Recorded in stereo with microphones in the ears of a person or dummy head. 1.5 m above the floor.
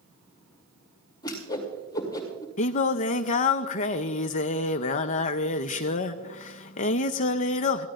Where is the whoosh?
25° left (ahead or behind), 2.5 m.